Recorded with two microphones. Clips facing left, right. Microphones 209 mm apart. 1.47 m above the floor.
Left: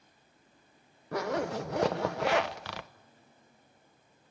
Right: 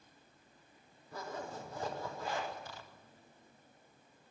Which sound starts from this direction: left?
A zipper, at 1.1 s.